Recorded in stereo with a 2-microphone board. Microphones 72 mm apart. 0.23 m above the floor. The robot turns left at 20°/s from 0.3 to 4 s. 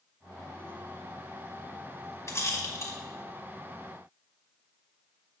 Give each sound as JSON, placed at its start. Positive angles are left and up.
{"t": 2.3, "sound": "a rattle", "side_deg": 40, "distance_m": 1.7}